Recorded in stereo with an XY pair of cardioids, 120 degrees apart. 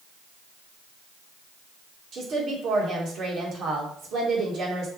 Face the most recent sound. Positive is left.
turn(degrees=-50)